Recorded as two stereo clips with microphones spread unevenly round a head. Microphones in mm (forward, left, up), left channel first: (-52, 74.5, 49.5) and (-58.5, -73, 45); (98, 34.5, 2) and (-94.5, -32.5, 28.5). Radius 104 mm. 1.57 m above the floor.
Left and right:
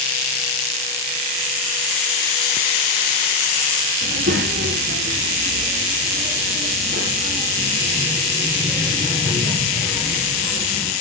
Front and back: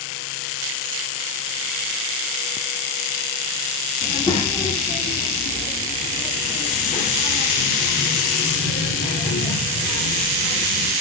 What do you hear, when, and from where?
4.0 s a child speaking: 55° right, 1.7 m; by 10.9 s 30° right, 5 m